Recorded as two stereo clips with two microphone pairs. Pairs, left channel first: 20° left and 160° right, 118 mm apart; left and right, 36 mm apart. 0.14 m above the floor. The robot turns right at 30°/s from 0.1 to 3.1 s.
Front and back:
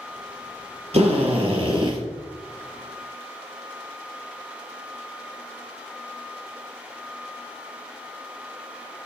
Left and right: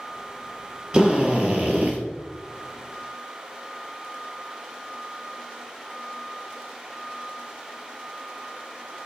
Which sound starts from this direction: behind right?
A drill, at 0.9 s.